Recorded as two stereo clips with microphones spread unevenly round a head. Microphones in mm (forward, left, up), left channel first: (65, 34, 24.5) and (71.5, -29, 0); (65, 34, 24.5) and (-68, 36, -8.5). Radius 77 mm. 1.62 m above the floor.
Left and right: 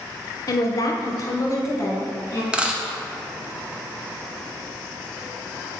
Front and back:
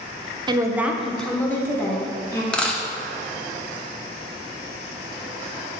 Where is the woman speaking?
120° left, 0.8 m; by 2.4 s 65° left, 2.5 m.